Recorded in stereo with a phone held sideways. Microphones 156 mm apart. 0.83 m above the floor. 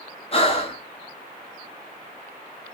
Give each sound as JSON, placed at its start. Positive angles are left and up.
{"t": 0.3, "sound": "breathing", "side_deg": 35, "distance_m": 1.2}